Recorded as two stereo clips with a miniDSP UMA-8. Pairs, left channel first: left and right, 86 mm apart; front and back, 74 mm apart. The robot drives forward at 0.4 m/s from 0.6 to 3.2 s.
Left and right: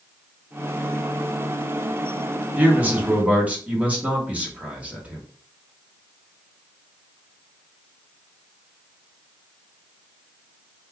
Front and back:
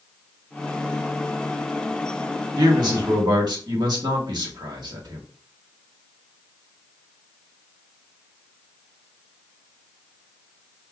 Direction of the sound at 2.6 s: 160° right.